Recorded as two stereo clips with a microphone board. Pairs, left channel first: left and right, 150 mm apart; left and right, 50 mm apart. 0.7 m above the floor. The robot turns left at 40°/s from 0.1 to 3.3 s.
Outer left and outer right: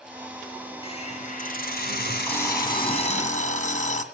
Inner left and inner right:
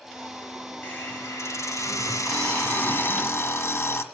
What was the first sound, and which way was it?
A hiss, 145° left.